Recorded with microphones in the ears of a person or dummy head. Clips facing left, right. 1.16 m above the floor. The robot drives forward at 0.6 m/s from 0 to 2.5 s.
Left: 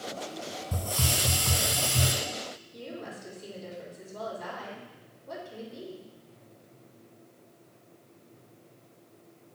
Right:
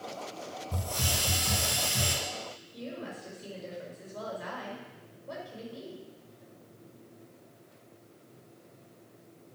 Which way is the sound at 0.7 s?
55° left (ahead or behind).